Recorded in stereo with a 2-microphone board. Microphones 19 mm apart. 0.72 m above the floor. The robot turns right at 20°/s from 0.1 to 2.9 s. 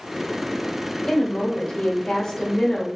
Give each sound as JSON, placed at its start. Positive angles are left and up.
{"t": 1.1, "sound": "a woman speaking", "azimuth_deg": 120, "distance_m": 2.0}